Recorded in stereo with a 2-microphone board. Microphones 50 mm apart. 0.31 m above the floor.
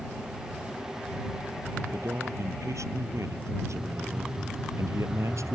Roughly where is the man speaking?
Right.